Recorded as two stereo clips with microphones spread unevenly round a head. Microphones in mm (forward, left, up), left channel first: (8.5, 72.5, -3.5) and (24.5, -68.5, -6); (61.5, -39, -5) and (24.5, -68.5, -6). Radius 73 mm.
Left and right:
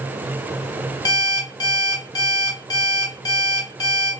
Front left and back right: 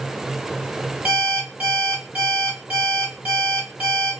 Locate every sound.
1.1 s an alarm clock: 160° left, 1.6 m